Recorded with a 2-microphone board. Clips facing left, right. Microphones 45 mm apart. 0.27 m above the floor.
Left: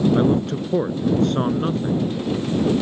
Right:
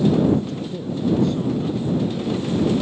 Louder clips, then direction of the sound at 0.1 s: Left 1 dB; 55° left (ahead or behind).